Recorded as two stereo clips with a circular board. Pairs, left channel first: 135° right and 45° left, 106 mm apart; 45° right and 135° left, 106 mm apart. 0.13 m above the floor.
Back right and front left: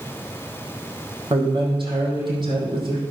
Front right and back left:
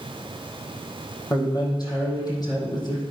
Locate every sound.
1.3 s a man speaking: 5° left, 4.5 m